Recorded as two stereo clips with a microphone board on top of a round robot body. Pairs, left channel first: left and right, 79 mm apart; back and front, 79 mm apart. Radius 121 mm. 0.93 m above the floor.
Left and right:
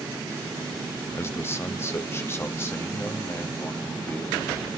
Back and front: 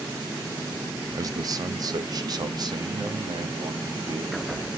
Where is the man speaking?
35° left, 1.2 m; by 4.7 s 30° left, 3 m.